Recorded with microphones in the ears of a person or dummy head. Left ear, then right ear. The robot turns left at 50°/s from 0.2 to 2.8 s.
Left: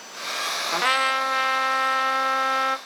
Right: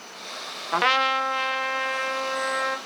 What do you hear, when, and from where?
0.7 s a trumpet: 160° right, 0.6 m; by 2.8 s 95° left, 0.6 m